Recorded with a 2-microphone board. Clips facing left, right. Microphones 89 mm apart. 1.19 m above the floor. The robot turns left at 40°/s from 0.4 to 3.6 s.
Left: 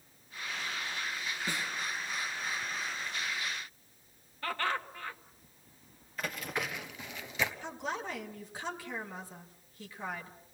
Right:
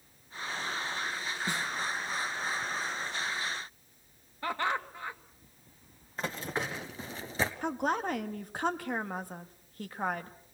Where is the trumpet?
No trumpet in this recording.